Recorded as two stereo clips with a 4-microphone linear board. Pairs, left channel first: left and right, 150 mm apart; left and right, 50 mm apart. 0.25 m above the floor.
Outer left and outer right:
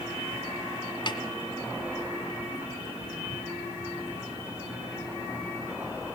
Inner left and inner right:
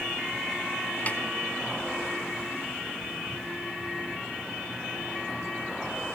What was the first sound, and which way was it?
A snare drum, 30° left (ahead or behind).